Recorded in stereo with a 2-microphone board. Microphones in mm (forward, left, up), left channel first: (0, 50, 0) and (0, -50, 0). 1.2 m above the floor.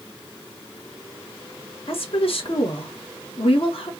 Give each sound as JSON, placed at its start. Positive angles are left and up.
{"t": 1.9, "sound": "a woman speaking", "side_deg": 70, "distance_m": 1.3}